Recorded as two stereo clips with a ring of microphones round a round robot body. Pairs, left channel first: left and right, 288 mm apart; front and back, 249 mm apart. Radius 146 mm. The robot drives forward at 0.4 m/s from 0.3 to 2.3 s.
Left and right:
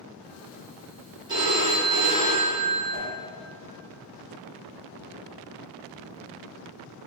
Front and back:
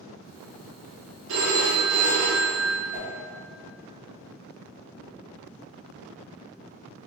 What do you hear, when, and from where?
1.3 s a phone ringing: 160° right, 0.7 m; by 2.8 s 170° right, 1.0 m
2.9 s a whoosh: 110° left, 0.9 m